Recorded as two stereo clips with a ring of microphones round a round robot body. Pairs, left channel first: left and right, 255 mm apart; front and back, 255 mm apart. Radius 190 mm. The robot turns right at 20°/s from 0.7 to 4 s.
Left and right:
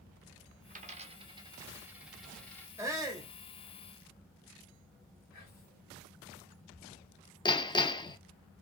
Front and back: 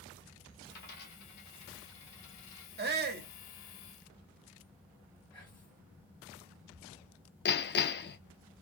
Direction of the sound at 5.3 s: 80° left.